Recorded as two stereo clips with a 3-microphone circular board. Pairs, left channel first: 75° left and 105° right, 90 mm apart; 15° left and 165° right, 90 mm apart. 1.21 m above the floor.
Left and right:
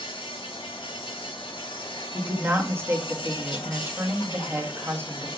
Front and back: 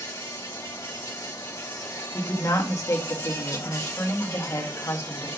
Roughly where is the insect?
Left.